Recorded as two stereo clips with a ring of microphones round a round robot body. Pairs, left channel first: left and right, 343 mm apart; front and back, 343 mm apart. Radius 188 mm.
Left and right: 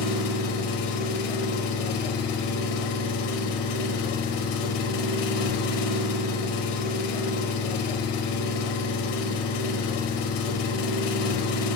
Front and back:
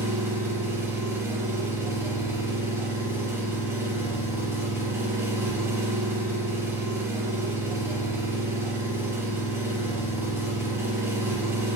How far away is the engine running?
About 0.8 m.